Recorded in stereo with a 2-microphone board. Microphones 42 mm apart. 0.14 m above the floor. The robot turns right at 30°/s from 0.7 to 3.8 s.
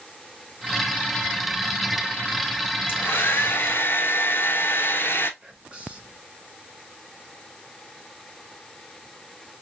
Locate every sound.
2.9 s a hair dryer: 55° left (ahead or behind), 0.8 m; by 5.3 s 60° left (ahead or behind), 0.8 m
5.4 s whispering: 25° right (ahead or behind), 1.1 m